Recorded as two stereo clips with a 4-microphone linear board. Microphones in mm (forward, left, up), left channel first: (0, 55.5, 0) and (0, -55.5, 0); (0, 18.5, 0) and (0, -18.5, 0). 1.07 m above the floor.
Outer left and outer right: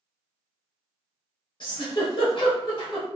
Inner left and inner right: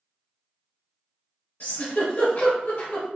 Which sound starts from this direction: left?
A giggle, at 1.6 s.